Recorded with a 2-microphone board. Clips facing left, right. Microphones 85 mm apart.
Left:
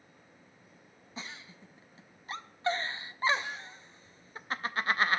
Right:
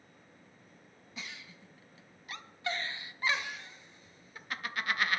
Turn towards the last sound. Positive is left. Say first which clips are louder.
# left 2 dB
turn(degrees=30)  # may be behind; listen again after turning